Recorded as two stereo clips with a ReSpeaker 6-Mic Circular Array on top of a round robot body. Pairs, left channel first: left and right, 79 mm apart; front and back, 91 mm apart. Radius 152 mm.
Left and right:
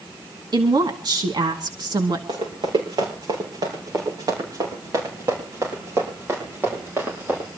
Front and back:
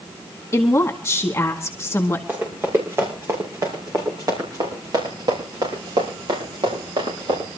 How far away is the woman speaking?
About 2.5 m.